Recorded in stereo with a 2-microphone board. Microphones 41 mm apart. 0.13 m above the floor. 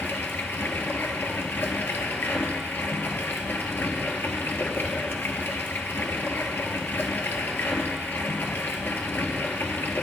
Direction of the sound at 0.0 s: 60° left (ahead or behind).